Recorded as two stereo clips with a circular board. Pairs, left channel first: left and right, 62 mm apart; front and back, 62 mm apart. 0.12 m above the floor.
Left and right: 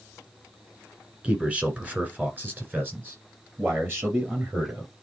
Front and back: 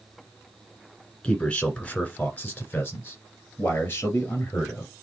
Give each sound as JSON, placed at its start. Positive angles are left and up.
{"t": 1.2, "sound": "a man speaking", "azimuth_deg": -50, "distance_m": 1.6}